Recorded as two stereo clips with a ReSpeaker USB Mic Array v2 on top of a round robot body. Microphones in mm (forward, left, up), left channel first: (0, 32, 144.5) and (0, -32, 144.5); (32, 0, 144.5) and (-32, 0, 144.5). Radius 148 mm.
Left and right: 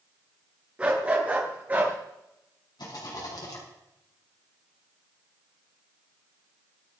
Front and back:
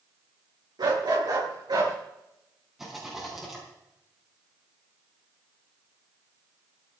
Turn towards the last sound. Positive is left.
turn(degrees=95)